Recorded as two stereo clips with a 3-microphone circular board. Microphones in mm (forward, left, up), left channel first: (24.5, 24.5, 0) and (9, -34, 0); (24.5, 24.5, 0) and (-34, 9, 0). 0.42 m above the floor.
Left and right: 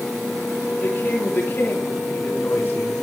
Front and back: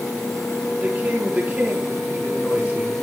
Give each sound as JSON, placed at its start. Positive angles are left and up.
{"t": 0.8, "sound": "a woman speaking", "azimuth_deg": 130, "distance_m": 7.5}